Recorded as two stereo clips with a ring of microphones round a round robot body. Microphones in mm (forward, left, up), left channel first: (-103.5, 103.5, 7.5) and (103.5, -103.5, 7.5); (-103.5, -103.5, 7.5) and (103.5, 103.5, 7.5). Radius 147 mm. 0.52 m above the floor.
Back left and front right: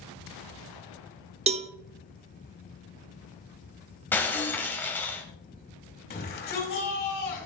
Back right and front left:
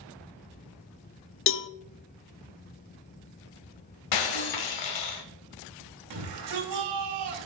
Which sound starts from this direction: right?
A cowbell, at 1.5 s.